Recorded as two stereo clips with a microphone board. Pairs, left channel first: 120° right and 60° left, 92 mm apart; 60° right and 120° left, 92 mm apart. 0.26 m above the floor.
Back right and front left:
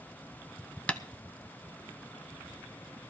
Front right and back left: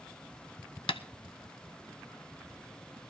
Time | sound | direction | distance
0.9 | tapping | 45° right | 0.5 m